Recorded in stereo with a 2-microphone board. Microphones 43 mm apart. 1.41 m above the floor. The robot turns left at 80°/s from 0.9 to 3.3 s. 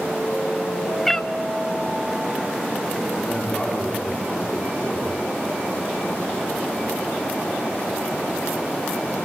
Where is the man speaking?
20° left (ahead or behind), 3.5 m; by 5.2 s 10° left (ahead or behind), 3.5 m.